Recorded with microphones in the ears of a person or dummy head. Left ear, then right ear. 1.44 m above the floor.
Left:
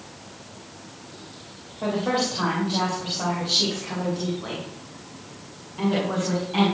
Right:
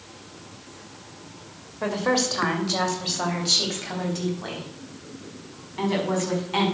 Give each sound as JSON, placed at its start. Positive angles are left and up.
{"t": 1.8, "sound": "a woman speaking", "side_deg": -60, "distance_m": 2.0}